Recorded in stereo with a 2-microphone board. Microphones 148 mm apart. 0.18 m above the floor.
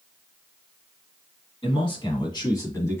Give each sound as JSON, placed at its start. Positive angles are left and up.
{"t": 1.6, "sound": "a man speaking", "side_deg": 40, "distance_m": 1.6}